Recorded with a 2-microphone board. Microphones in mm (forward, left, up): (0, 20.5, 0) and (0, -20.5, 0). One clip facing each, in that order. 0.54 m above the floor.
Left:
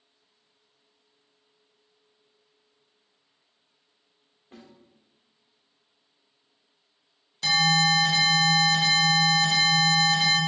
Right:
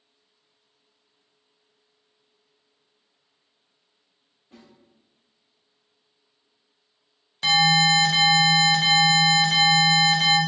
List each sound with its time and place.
4.5 s a snare drum: 45° left (ahead or behind), 1.4 m
7.4 s an alarm: 30° right (ahead or behind), 1.1 m